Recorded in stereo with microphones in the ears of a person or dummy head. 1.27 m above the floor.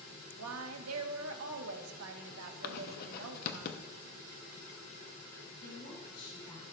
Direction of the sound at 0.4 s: 85° right.